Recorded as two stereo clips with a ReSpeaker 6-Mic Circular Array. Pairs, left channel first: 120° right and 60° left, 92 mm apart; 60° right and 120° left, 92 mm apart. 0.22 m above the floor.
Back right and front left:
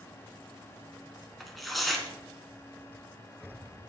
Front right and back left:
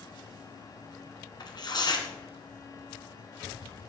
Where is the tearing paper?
30° right, 1.5 m.